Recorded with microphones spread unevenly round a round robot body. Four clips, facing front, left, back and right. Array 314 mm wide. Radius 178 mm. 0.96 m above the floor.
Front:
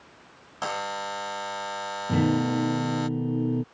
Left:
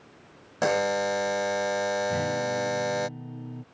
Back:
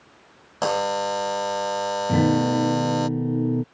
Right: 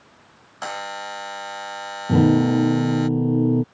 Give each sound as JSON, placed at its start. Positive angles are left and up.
{"t": 0.6, "sound": "a buzzer", "azimuth_deg": 125}
{"t": 2.1, "sound": "a guitar", "azimuth_deg": -105}